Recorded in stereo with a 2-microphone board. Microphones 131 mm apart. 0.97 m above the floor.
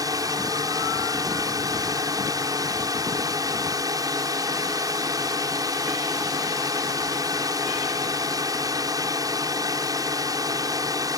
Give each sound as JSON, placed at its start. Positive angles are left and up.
{"t": 0.0, "sound": "a drone", "side_deg": -30}